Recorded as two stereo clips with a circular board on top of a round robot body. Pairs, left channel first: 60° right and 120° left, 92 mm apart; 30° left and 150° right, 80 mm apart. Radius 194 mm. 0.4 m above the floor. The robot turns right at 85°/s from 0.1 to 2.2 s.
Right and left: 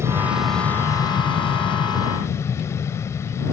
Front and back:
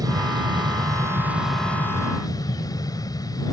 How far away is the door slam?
I don't hear a door slam.